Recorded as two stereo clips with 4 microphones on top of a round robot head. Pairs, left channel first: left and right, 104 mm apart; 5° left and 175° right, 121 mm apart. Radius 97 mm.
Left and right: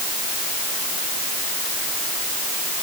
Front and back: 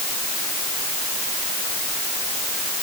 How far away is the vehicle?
I don't hear a vehicle.